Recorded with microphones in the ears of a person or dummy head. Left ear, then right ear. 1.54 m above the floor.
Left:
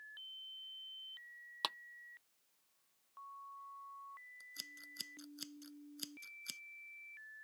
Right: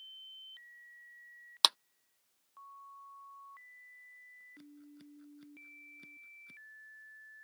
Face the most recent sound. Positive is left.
turn(degrees=75)  # may be behind; listen again after turning